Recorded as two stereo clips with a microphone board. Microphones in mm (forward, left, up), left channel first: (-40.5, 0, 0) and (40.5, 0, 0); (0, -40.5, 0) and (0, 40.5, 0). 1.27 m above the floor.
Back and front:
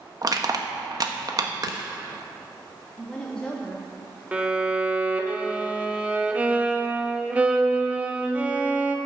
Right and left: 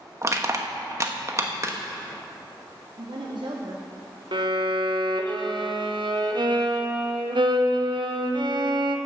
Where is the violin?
70° left, 0.9 m.